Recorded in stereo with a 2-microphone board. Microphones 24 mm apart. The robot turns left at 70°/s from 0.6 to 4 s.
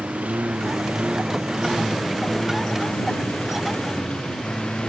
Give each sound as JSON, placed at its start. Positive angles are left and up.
{"t": 0.0, "sound": "a lawn mower", "azimuth_deg": -70}